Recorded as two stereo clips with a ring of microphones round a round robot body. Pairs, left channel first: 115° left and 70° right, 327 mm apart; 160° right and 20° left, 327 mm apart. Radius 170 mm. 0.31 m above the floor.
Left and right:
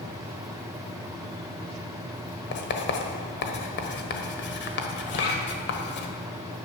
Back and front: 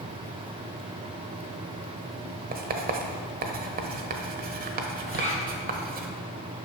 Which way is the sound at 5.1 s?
135° left.